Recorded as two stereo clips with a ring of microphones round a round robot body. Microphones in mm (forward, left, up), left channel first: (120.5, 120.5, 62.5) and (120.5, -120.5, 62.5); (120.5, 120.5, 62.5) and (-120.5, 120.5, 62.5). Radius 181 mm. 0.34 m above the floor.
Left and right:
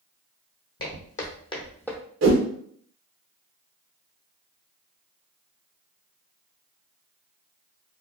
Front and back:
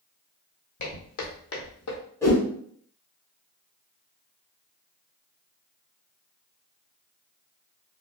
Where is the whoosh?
80° right, 0.7 m.